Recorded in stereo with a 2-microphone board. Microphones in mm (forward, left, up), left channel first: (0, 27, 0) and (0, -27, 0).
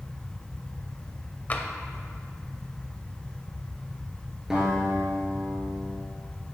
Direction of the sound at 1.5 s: 35° left (ahead or behind).